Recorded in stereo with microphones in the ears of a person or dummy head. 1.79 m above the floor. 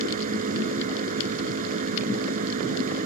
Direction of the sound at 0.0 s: 45° right (ahead or behind).